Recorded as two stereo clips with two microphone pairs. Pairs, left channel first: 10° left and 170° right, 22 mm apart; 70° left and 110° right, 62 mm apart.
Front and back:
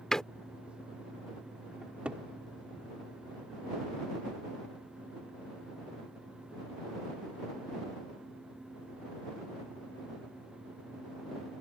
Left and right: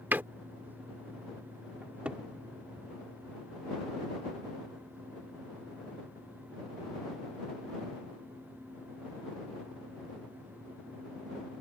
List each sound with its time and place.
0.1 s a door slam: 50° right
1.8 s a cupboard door: 175° right